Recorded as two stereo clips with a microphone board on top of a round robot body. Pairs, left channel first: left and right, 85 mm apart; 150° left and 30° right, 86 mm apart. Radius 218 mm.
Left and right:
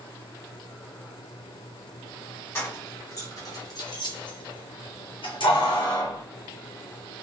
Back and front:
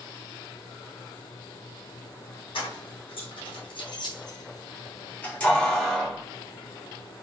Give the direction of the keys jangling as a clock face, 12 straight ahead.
7 o'clock.